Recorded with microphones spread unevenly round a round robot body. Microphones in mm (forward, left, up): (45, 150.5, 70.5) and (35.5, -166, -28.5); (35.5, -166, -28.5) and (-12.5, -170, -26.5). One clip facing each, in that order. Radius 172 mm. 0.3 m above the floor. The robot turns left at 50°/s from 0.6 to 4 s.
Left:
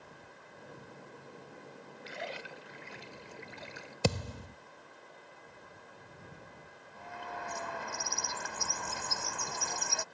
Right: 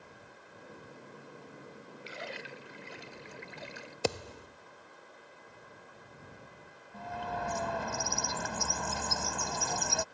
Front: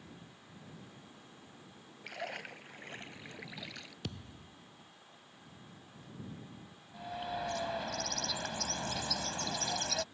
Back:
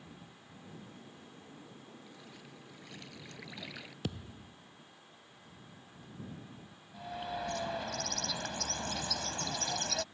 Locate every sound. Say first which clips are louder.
2.0 s a splash: left 1 dB, front 10 dB; 5° right; by 3.9 s 100° right
4.0 s a thud: left 1 dB, back 6 dB; 100° left
6.9 s a bird: right 6 dB, even; 85° right